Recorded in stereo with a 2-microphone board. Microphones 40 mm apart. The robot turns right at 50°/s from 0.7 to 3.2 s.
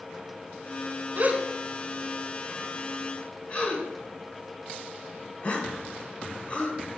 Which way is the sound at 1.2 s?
40° right (ahead or behind).